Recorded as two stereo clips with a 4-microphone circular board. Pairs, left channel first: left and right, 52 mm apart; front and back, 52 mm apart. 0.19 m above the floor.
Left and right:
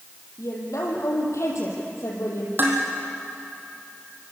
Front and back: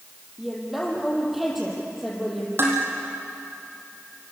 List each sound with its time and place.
0.4 s a woman speaking: 95° left, 7 m
2.6 s dishes clattering: 140° right, 4.5 m